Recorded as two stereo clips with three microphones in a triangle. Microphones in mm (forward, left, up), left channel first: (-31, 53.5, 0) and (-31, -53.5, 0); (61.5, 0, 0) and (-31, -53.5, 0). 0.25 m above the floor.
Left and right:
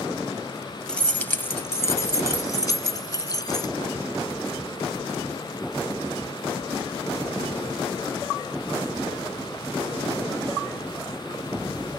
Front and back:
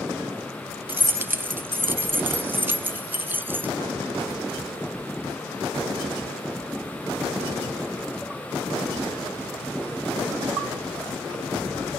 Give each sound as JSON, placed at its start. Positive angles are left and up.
{"t": 0.9, "sound": "keys jangling", "azimuth_deg": 165}